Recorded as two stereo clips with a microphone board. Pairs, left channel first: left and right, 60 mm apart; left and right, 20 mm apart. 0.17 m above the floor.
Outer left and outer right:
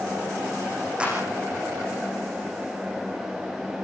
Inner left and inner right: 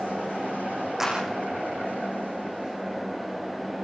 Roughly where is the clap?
Centre.